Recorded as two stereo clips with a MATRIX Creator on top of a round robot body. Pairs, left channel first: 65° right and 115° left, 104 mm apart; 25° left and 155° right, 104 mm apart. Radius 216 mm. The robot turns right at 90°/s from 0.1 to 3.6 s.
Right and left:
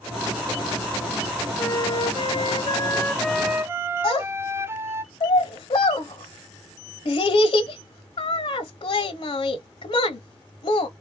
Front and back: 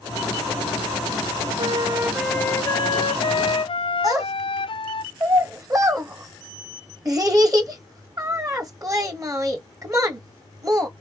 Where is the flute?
135° right, 0.6 m; by 5.0 s 45° left, 0.6 m.